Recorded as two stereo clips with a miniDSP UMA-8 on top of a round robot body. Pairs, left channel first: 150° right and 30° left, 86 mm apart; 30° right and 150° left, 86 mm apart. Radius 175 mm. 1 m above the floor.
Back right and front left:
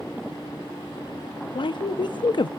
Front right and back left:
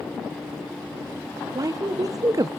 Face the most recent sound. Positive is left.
turn(degrees=-165)